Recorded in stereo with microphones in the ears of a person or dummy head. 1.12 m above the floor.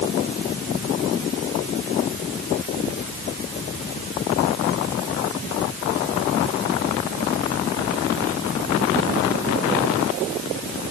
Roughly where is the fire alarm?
No fire alarm in this recording.